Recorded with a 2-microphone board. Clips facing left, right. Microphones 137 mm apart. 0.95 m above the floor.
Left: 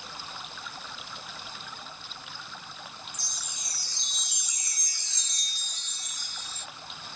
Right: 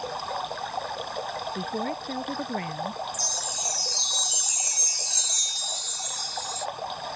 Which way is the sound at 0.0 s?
55° right (ahead or behind).